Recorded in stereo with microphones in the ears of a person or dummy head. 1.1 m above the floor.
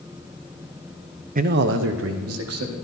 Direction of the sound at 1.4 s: 40° right (ahead or behind).